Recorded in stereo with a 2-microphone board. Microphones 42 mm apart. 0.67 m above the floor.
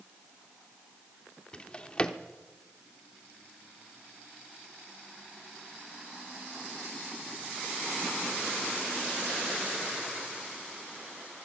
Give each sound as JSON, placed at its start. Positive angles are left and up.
{"t": 1.5, "sound": "a drawer", "side_deg": 25, "distance_m": 0.7}